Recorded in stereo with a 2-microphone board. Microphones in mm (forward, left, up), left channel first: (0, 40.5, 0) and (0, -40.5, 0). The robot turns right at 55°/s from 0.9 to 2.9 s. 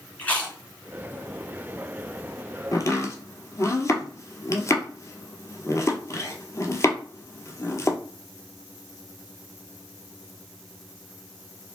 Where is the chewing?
20° left (ahead or behind), 1.9 m.